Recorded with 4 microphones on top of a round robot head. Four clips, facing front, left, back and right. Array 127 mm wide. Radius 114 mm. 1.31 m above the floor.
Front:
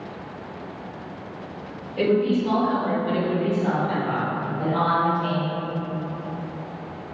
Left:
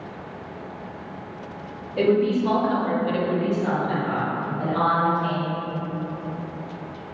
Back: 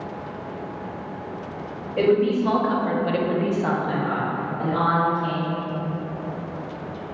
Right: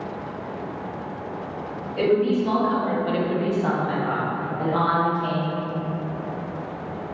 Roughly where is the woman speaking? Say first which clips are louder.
Even, back 2 dB; behind left.